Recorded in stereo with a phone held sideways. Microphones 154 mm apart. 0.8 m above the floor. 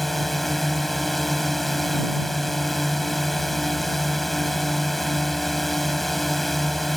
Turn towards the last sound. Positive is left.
turn(degrees=0)  # may be behind; listen again after turning